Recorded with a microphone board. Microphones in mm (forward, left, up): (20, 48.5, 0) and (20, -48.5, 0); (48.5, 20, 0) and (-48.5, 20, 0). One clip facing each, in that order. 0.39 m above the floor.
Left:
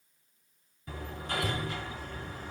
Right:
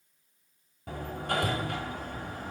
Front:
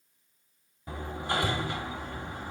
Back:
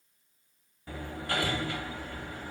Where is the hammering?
70° right, 1.3 m.